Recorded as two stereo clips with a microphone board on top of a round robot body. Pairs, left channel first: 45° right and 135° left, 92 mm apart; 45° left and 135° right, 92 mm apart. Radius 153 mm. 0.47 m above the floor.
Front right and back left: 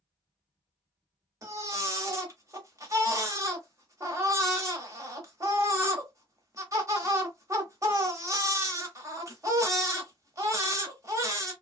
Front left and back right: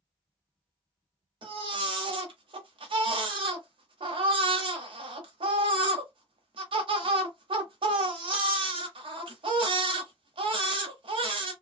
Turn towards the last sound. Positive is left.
turn(degrees=-165)